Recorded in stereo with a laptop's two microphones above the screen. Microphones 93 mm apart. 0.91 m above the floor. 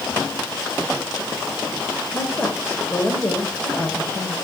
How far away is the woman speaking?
About 3 m.